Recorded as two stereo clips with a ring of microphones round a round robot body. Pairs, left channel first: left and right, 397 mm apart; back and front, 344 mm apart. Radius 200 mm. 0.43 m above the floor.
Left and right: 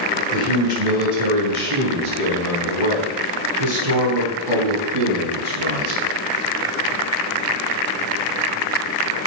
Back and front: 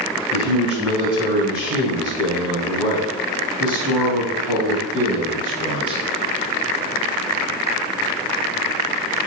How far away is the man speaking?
About 3 m.